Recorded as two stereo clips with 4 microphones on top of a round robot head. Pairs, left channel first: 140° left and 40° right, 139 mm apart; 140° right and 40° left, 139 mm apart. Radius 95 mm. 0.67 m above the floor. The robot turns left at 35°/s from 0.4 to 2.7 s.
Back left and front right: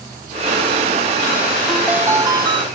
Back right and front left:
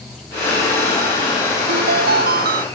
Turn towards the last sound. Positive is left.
turn(degrees=15)